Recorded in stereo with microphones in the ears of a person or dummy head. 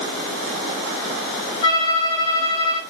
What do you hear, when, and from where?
1.6 s a violin: 40° left (ahead or behind), 4 m